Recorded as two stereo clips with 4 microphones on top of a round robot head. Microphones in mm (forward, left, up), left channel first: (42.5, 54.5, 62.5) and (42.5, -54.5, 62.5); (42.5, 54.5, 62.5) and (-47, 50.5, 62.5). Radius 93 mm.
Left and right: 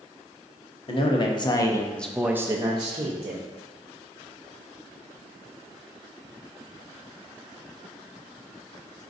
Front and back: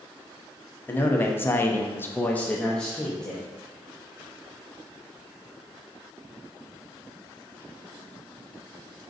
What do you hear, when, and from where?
0.9 s a man speaking: 70° left, 1.0 m; by 3.4 s 85° right, 1.0 m